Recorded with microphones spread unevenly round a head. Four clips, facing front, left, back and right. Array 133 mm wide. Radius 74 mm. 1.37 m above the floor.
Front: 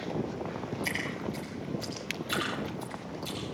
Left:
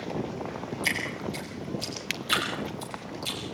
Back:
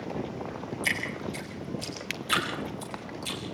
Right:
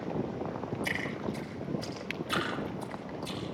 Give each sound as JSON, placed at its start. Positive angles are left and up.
{"t": 0.8, "sound": "dripping", "azimuth_deg": 120, "distance_m": 9.0}